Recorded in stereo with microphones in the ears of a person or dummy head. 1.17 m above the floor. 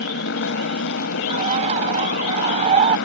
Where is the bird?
30° right (ahead or behind).